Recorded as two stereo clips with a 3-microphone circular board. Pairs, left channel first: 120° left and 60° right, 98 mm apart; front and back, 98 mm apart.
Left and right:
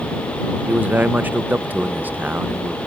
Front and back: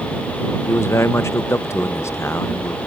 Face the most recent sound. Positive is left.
turn(degrees=-10)